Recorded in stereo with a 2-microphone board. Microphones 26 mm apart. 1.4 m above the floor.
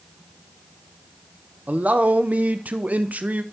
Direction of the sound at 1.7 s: 85° right.